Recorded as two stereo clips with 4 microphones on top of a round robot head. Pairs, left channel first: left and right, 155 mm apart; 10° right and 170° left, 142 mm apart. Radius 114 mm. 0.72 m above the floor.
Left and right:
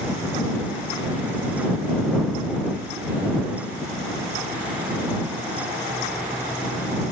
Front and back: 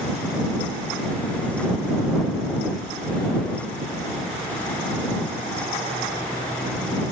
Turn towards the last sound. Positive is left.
No sound to turn to.